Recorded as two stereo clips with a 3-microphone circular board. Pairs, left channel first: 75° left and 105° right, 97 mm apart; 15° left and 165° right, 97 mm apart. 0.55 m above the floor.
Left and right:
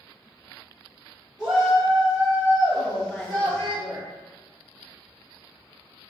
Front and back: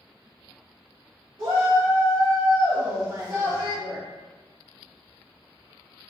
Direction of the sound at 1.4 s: 170° left.